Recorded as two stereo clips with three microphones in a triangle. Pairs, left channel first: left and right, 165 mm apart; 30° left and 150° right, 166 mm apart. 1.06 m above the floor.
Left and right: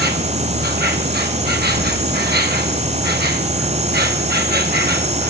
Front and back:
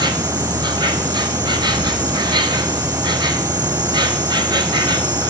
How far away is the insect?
About 1.4 m.